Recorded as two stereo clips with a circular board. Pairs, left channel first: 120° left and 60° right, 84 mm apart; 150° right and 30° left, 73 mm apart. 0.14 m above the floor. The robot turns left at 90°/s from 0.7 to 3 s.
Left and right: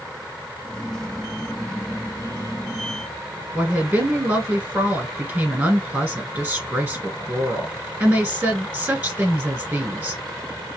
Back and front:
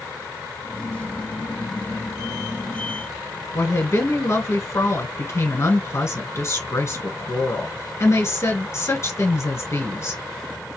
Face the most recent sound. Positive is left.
turn(degrees=-125)